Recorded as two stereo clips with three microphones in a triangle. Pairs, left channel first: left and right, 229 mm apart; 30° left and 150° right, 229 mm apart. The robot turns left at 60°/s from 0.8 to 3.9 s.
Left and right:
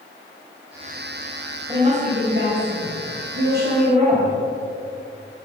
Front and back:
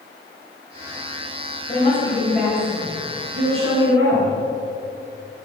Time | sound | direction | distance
1.7 | a woman speaking | 20° right | 4.5 m